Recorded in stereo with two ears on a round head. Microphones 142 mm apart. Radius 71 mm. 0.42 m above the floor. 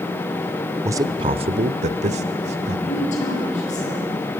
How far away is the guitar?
No guitar in this recording.